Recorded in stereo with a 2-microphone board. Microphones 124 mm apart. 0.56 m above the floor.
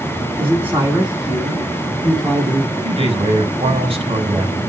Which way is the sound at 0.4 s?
15° right (ahead or behind).